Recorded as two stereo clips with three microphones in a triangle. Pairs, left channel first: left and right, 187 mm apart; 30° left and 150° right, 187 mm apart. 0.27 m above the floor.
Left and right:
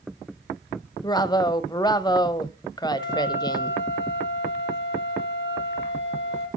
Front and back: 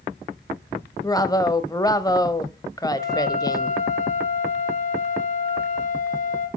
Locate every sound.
1.0 s a woman speaking: 65° left, 1.1 m
3.0 s a flute: 75° left, 5.5 m